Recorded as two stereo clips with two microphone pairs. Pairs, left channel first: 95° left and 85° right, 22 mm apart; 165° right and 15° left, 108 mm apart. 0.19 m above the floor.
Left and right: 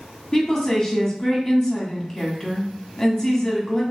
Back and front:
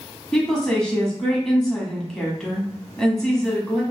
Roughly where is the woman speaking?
Behind left.